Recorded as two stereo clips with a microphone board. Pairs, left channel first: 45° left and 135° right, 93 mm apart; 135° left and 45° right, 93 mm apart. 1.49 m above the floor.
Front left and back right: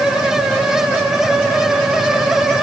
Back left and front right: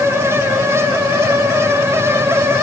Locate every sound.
Only background noise.